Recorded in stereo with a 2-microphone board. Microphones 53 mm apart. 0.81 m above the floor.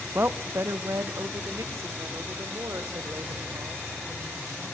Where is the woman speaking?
45° right (ahead or behind), 0.6 m; by 4.8 s 75° right (ahead or behind), 3.5 m.